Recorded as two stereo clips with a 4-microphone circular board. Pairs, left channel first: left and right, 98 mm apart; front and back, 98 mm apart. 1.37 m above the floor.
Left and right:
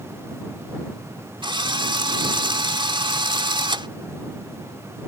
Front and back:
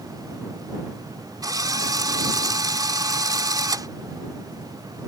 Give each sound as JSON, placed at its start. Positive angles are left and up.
{"t": 1.4, "sound": "a drill", "azimuth_deg": -130}